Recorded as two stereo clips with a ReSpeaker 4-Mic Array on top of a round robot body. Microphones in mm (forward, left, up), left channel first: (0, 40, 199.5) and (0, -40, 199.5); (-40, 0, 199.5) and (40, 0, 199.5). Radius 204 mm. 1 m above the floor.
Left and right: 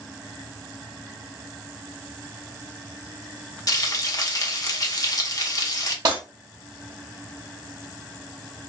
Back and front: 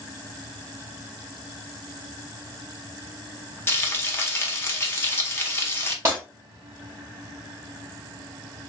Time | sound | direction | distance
3.7 | frying | 125° left | 1.0 m
6.0 | breaking glass | 50° right | 0.8 m